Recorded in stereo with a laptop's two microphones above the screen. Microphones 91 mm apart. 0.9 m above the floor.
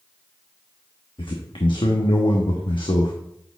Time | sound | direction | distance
1.2 | a man speaking | 65° left (ahead or behind) | 1.0 m